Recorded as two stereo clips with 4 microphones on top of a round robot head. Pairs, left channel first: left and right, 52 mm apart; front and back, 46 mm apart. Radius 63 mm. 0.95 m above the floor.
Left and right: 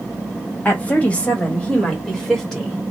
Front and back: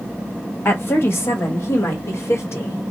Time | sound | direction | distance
0.7 | a woman speaking | 35° left | 1.6 m